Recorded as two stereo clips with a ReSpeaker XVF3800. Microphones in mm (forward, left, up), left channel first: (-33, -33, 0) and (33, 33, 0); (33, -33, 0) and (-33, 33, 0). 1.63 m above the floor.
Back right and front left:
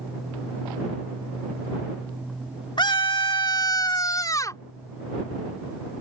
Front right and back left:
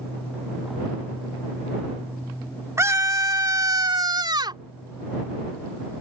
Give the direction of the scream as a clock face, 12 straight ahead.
6 o'clock.